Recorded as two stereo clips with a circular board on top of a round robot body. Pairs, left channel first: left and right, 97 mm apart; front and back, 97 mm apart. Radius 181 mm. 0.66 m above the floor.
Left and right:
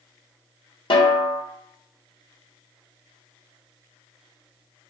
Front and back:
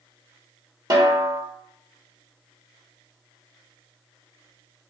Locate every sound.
0.9 s a snare drum: 130° left, 1.1 m